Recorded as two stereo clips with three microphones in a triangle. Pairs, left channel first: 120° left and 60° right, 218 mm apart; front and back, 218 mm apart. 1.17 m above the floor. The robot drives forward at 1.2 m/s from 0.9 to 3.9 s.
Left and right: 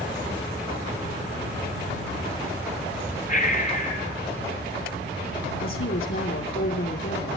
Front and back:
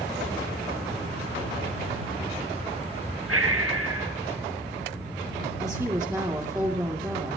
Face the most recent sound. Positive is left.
turn(degrees=105)